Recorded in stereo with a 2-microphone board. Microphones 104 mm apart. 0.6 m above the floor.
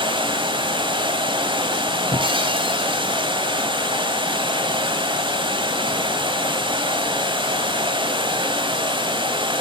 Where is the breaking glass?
50° right (ahead or behind), 1.6 m.